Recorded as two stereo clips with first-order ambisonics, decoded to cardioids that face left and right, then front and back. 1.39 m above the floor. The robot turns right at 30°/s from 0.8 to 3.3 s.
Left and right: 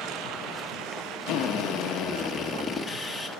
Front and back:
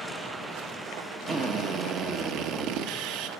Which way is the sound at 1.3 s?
120° left.